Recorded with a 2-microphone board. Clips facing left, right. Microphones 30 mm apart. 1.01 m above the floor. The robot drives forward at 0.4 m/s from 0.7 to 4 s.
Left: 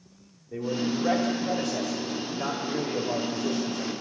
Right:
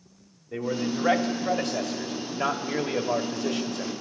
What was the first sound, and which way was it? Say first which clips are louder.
A man speaking: even; 55° right (ahead or behind).